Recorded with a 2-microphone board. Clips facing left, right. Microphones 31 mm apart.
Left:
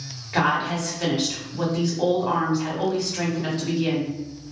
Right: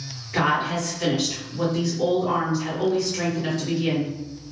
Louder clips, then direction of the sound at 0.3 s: Even; 40° left (ahead or behind).